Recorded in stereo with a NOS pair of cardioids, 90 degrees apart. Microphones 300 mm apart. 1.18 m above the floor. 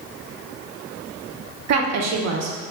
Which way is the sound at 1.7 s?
60° right.